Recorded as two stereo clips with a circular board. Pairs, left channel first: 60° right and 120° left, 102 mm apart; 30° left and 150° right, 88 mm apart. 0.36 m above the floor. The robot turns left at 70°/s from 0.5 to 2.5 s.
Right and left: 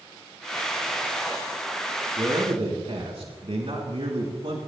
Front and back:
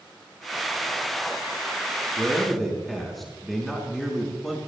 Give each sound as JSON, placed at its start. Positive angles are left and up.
{"t": 2.2, "sound": "a man speaking", "azimuth_deg": 140, "distance_m": 3.5}